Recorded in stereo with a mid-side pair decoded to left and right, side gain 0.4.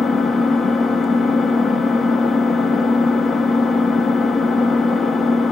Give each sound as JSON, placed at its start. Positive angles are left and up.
{"t": 0.0, "sound": "an engine running", "azimuth_deg": 50, "distance_m": 1.2}